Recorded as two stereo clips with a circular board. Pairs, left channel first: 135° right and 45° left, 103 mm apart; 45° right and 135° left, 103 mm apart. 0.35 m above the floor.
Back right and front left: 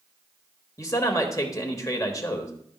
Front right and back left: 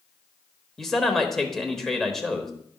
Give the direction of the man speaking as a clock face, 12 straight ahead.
4 o'clock.